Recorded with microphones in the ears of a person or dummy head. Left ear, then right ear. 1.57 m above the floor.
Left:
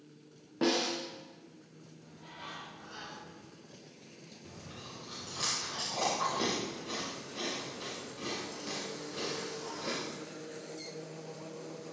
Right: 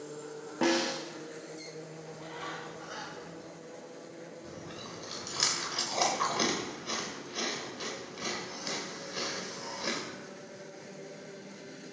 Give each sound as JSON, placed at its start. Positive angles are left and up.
{"t": 0.6, "sound": "a snare drum", "side_deg": -25, "distance_m": 1.3}
{"t": 2.0, "sound": "a bird", "side_deg": -80, "distance_m": 4.0}
{"t": 4.4, "sound": "chewing", "side_deg": -30, "distance_m": 2.5}